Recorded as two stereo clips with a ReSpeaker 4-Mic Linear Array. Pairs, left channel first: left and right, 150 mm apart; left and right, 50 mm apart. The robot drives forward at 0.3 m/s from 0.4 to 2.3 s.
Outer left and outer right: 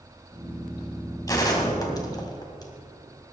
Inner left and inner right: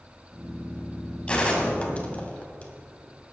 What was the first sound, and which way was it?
A gunshot, 25° left (ahead or behind).